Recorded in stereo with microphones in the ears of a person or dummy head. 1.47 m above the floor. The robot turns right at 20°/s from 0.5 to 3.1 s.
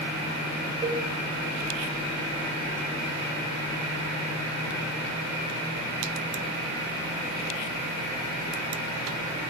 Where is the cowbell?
20° right (ahead or behind), 1.3 m; by 1.1 s 25° right (ahead or behind), 1.3 m.